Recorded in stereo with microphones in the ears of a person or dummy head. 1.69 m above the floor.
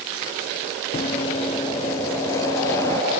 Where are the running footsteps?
25° left (ahead or behind); by 3.0 s 15° left (ahead or behind).